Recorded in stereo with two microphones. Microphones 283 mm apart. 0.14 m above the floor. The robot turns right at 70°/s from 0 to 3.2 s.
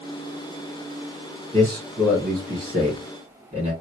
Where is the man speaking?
10° left (ahead or behind), 1.8 m; by 3.7 s 25° right (ahead or behind), 1.8 m.